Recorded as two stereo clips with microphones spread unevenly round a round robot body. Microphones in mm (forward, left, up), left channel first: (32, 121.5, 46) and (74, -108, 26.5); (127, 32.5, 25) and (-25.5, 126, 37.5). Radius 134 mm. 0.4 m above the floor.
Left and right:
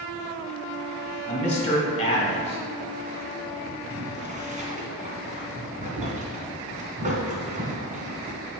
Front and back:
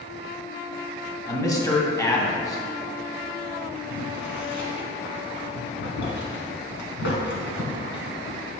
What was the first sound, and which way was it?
A man speaking, 35° left.